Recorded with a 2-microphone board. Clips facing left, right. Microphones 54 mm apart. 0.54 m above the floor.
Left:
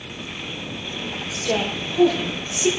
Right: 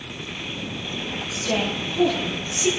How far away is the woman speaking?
About 5.5 m.